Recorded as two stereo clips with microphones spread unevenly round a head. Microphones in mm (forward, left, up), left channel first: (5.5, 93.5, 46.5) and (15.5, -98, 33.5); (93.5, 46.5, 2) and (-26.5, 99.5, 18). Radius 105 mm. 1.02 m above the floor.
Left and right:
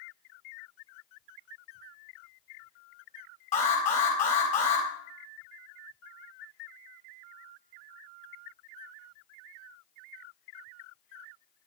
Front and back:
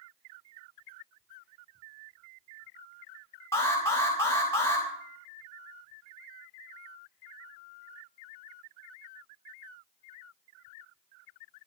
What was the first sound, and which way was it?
An alarm, 45° left.